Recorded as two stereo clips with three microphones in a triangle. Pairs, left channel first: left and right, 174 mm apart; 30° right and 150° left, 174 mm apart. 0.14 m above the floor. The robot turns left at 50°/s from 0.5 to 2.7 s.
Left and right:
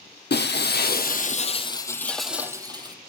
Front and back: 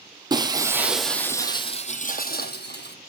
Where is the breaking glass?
85° left, 1.6 m; by 3.0 s 25° right, 1.6 m.